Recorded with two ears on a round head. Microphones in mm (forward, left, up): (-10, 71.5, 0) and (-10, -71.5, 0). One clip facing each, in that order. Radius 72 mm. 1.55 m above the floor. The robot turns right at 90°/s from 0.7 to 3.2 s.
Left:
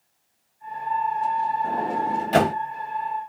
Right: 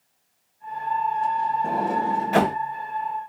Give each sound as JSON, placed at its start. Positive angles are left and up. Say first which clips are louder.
{"t": 1.6, "sound": "a sliding door", "louder": "right 1 dB", "side_deg": -20, "distance_m": 1.0}